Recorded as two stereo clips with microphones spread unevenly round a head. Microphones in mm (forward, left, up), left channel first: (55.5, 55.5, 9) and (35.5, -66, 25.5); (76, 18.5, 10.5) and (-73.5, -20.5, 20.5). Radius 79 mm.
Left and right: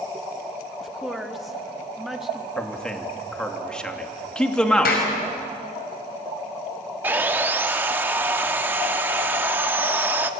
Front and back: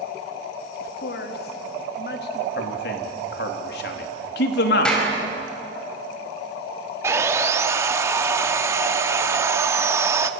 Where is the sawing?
125° right, 0.7 m.